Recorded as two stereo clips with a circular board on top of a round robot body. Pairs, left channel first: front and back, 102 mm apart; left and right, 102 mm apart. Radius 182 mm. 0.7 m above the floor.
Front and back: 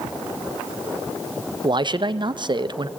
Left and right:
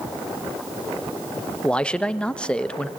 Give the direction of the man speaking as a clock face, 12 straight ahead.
6 o'clock.